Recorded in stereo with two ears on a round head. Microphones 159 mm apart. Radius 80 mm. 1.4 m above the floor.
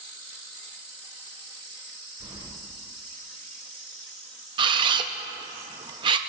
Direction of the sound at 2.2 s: 30° right (ahead or behind).